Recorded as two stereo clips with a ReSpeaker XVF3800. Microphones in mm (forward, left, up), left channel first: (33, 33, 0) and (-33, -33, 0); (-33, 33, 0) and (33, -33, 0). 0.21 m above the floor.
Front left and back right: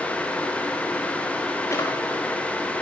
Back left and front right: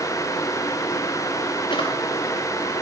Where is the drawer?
105° left, 6.5 m.